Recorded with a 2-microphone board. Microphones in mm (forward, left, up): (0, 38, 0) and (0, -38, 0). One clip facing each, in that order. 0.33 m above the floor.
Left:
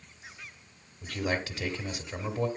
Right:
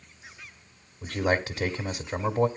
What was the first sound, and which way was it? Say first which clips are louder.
A man speaking: right 5 dB; 30° right (ahead or behind).